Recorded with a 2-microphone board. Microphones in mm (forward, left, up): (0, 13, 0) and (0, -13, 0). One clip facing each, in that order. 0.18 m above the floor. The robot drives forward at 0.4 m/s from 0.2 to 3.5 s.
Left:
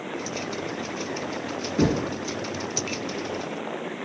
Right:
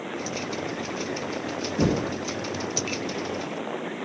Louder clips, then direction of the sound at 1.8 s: Left 1 dB; 50° left (ahead or behind).